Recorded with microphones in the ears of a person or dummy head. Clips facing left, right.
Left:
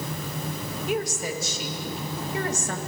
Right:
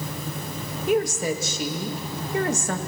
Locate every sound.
0.9 s a woman speaking: 55° right (ahead or behind), 1.9 m